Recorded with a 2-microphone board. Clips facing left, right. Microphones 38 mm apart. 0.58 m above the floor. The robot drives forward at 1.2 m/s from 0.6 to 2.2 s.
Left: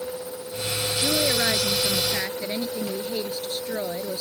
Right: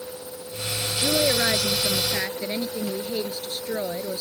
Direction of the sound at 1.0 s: 25° right (ahead or behind).